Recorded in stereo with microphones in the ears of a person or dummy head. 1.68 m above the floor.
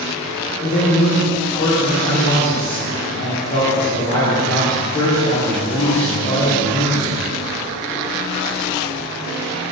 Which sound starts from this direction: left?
A man speaking, at 0.6 s.